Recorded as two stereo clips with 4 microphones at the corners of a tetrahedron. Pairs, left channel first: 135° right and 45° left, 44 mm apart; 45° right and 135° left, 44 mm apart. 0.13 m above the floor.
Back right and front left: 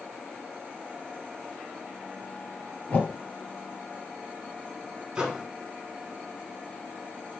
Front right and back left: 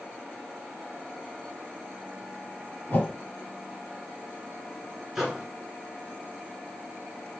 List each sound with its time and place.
2.9 s a whoosh: 90° right, 2.5 m
5.2 s a microwave: 55° left, 1.4 m